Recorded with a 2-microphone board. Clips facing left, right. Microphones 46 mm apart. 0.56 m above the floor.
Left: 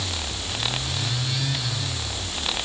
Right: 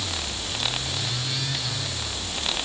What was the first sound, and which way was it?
Only background noise.